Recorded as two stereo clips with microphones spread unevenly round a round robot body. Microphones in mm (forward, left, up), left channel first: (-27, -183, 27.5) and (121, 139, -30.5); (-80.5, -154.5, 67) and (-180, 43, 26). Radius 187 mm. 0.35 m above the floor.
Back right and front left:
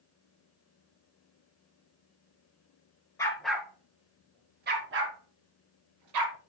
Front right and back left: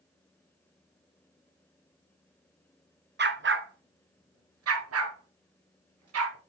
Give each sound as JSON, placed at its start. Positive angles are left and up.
{"t": 3.2, "sound": "a dog barking", "azimuth_deg": 165, "distance_m": 1.3}